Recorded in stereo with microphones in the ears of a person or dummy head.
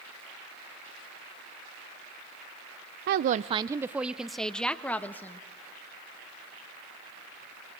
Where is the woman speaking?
55° right (ahead or behind), 0.5 m; by 5.4 s 15° left (ahead or behind), 1.7 m.